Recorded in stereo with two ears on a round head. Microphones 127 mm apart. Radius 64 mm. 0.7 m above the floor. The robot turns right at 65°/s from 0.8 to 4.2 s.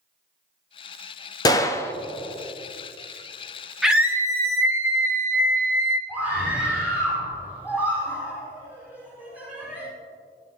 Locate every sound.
1.4 s a gunshot: 115° left, 0.6 m; by 1.9 s 145° left, 0.6 m
3.8 s a scream: centre (ahead or behind), 1.2 m; by 6.0 s 20° right (ahead or behind), 1.2 m
6.1 s a scream: 10° right (ahead or behind), 5 m